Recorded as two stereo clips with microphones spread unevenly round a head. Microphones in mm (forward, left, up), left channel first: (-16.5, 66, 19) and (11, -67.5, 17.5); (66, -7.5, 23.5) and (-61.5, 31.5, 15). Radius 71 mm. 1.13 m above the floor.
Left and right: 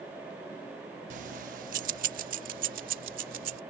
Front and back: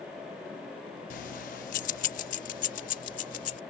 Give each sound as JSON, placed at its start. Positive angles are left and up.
{"t": 1.1, "sound": "keys jangling", "azimuth_deg": -45}